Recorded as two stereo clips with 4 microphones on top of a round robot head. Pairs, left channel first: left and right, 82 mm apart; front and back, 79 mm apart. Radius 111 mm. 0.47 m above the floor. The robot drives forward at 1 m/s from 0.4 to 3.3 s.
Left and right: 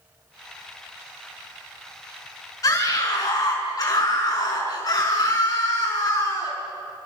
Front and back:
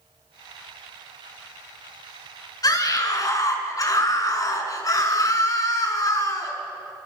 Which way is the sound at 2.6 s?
40° left.